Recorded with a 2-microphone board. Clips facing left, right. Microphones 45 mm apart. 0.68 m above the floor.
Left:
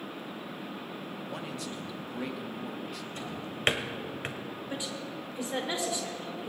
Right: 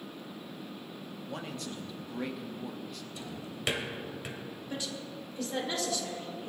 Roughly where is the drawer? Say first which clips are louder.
Left 4 dB; left.